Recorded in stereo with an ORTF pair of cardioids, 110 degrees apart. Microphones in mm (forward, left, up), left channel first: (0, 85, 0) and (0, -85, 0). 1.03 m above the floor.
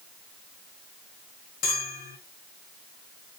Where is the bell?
65° left, 1.0 m.